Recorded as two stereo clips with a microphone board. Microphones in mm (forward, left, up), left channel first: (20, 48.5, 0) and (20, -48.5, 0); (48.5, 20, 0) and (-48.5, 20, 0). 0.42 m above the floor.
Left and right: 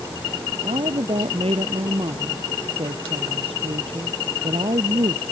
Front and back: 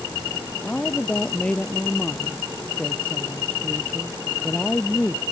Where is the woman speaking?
75° right.